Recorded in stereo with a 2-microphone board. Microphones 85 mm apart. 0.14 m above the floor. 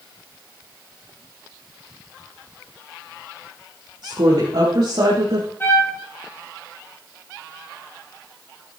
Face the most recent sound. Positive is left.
turn(degrees=25)  # may be behind; listen again after turning